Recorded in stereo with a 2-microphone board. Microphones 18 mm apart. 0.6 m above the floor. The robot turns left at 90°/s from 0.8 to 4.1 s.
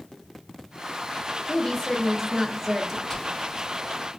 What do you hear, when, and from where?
1.5 s a woman speaking: 70° left, 0.7 m; by 3.0 s 65° right, 0.7 m
3.1 s whispering: 15° left (ahead or behind), 0.7 m; by 3.6 s 20° left (ahead or behind), 0.7 m